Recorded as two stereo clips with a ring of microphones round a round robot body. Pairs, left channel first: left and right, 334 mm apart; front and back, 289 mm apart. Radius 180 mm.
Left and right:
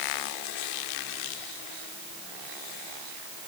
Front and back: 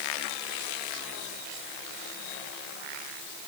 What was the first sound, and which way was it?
Only background noise.